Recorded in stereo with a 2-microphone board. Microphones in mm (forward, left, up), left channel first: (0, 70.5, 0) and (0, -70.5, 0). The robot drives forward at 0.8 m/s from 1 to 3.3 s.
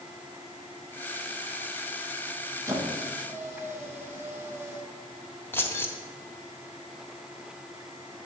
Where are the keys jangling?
15° left (ahead or behind), 1.1 m.